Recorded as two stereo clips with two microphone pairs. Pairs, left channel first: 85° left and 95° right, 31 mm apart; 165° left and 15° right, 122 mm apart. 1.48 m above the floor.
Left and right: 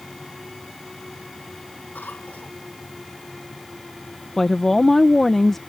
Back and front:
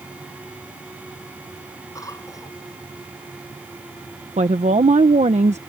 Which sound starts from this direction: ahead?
A woman speaking, at 4.4 s.